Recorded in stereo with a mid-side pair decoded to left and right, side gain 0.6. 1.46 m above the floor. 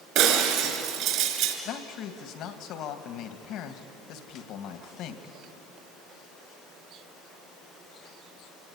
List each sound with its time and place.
0.1 s breaking glass: 70° right, 4.5 m
1.6 s a man speaking: 65° left, 2.5 m